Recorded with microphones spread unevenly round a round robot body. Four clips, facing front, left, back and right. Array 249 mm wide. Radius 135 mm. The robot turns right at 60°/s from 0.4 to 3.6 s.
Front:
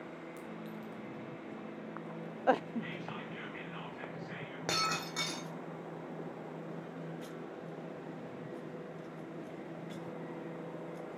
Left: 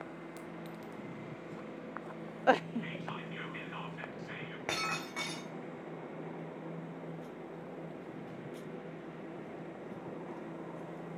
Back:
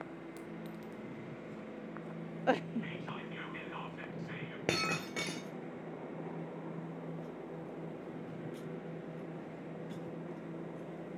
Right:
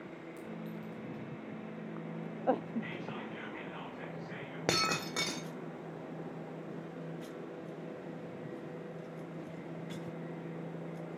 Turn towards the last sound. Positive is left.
turn(degrees=-130)